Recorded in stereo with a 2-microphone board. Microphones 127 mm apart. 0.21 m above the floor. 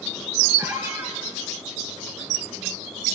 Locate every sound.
0.6 s a squeak: 20° right (ahead or behind), 7.5 m